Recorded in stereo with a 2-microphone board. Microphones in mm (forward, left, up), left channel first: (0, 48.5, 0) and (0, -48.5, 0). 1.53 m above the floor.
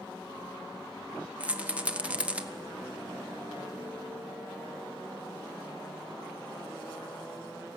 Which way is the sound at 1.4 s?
15° right (ahead or behind).